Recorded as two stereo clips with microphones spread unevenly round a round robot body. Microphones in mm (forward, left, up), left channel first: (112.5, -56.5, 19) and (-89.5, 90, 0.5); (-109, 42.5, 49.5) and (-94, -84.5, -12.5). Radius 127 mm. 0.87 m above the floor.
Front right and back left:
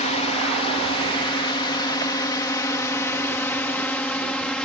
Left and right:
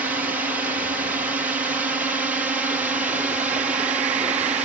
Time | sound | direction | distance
0.0 | a drone | 90° right | ?